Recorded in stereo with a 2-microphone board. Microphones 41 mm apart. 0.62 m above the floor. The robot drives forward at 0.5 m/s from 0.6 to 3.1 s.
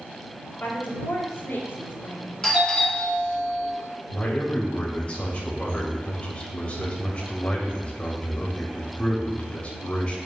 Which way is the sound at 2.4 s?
15° left (ahead or behind).